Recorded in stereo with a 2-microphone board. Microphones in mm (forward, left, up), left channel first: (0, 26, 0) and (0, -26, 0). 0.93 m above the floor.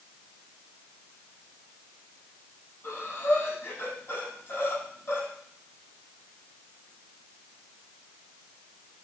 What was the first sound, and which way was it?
Breathing, 50° left (ahead or behind).